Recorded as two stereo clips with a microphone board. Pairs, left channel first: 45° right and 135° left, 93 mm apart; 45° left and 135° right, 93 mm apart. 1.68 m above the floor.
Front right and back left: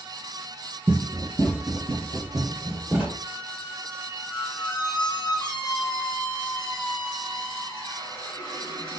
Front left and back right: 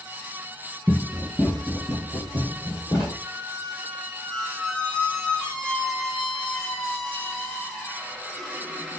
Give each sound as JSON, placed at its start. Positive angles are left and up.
{"t": 0.9, "sound": "running footsteps", "azimuth_deg": 145, "distance_m": 1.7}
{"t": 3.2, "sound": "a squeak", "azimuth_deg": -35, "distance_m": 1.0}